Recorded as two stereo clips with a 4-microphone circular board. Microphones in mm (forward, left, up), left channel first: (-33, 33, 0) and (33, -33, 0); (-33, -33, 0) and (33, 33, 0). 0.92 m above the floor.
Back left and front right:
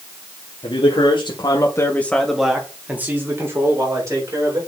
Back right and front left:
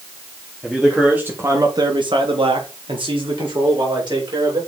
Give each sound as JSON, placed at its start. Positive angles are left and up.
{"t": 0.6, "sound": "a man speaking", "azimuth_deg": 135, "distance_m": 2.5}